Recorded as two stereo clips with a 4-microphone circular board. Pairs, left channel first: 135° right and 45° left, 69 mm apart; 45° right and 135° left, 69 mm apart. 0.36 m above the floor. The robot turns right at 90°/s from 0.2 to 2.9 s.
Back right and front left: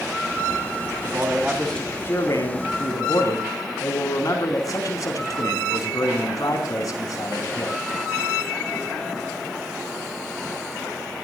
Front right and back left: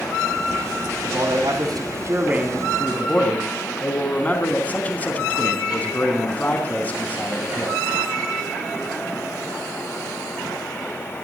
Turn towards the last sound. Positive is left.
turn(degrees=-110)